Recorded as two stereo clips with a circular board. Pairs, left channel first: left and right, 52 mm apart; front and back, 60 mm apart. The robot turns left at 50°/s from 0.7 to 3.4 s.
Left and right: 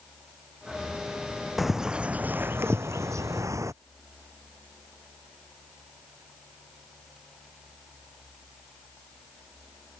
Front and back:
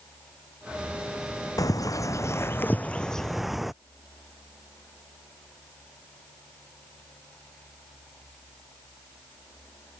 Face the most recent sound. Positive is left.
turn(degrees=-95)